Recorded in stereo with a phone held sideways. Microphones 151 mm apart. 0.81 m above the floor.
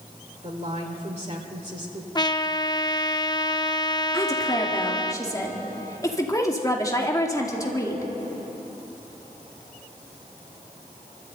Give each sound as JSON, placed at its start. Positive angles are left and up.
{"t": 0.4, "sound": "a woman speaking", "side_deg": -50, "distance_m": 2.0}
{"t": 2.1, "sound": "a trumpet", "side_deg": 30, "distance_m": 0.6}
{"t": 4.1, "sound": "a woman speaking", "side_deg": 20, "distance_m": 2.0}